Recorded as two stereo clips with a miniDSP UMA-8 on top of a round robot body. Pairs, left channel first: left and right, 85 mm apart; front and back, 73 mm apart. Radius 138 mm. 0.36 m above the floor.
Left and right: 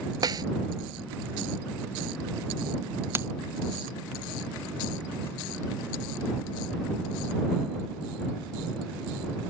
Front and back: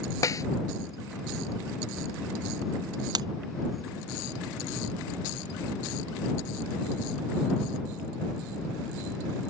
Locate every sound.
0.2 s a snare drum: 45° right
3.1 s breaking glass: 155° right